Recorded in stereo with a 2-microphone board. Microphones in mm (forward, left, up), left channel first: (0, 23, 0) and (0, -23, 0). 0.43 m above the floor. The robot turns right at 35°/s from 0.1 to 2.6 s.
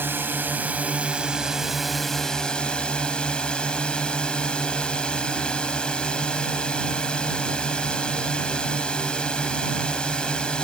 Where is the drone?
60° right; by 10.6 s 25° left.